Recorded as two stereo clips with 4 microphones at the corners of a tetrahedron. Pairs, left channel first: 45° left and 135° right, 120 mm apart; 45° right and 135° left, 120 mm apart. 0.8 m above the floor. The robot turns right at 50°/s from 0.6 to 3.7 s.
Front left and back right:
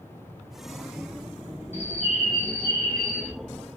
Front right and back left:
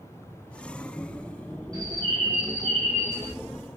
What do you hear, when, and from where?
1.7 s a bird: 65° left, 2.5 m; by 3.3 s 145° left, 2.5 m